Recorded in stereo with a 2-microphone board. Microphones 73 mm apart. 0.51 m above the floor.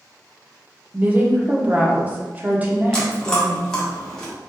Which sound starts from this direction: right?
A woman speaking, at 0.9 s.